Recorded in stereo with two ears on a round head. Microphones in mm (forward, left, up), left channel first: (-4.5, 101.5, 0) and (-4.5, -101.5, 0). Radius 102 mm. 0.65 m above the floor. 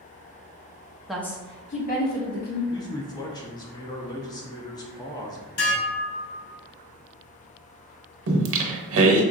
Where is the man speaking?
20° left (ahead or behind), 0.7 m.